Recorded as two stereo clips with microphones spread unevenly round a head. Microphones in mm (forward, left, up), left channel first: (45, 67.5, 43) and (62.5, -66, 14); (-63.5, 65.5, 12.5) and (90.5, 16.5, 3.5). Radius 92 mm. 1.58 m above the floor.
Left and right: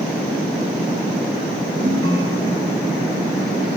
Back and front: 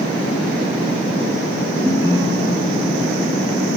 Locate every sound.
1.8 s a ringtone: 100° right, 1.6 m